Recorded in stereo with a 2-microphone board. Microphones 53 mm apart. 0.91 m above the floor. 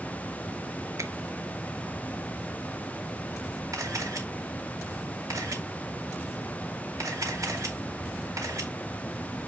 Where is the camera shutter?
70° right (ahead or behind), 2.5 m.